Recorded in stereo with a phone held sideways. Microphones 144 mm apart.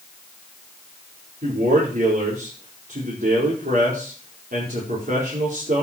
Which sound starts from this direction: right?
A man speaking, at 1.4 s.